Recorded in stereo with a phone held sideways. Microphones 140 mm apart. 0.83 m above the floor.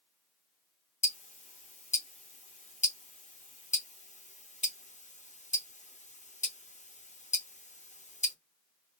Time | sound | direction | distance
1.0 | ticking | 60° left (ahead or behind) | 0.7 m